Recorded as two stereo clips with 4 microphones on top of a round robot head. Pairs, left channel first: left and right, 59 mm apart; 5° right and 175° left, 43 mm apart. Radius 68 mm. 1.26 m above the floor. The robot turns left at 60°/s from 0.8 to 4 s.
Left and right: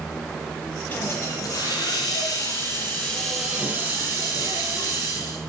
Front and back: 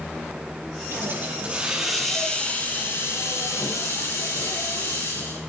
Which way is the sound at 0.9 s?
150° left.